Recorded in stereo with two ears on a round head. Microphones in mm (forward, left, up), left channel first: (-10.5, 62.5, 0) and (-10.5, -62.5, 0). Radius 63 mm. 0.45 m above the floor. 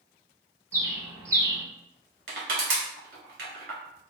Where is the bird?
25° right (ahead or behind), 0.8 m.